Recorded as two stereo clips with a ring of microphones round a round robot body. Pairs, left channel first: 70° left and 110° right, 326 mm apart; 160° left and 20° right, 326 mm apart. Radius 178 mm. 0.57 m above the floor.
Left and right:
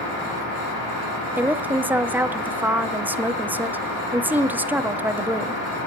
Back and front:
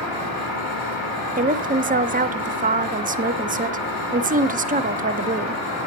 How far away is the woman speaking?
About 0.8 m.